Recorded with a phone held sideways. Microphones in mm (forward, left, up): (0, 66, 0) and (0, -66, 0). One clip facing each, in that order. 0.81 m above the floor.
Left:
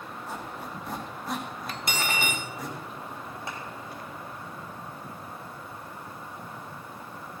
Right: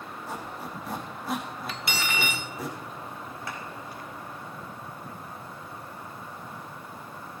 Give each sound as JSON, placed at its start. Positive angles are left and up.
{"t": 0.3, "sound": "a squeak", "side_deg": 0, "distance_m": 4.5}
{"t": 1.7, "sound": "cutlery clinking", "side_deg": 45, "distance_m": 0.7}
{"t": 3.5, "sound": "a clap", "side_deg": 25, "distance_m": 5.5}